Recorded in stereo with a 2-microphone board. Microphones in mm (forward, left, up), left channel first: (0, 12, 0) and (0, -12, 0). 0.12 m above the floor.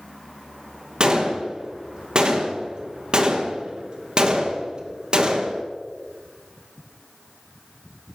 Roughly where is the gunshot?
Right.